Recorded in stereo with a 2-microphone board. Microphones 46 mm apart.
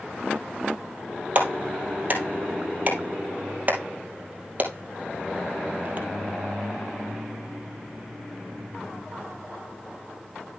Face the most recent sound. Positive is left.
turn(degrees=-40)  # may be behind; listen again after turning